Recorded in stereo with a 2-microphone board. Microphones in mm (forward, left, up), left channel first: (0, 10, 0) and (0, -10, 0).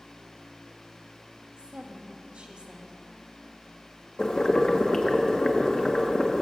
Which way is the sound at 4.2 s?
40° left (ahead or behind).